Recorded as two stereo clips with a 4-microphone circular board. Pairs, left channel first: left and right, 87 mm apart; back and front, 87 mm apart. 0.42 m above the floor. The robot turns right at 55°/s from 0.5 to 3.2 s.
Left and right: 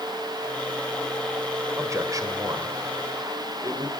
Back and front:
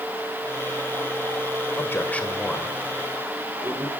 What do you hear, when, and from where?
1.8 s a man speaking: 135° right, 2 m; by 3.9 s 55° right, 2 m